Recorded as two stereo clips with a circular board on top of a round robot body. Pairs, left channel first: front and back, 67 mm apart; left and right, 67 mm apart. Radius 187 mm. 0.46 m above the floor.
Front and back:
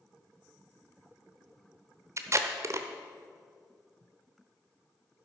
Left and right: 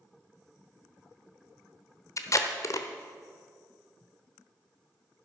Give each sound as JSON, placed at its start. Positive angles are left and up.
{"t": 2.2, "sound": "tape being pulled", "azimuth_deg": 130, "distance_m": 0.9}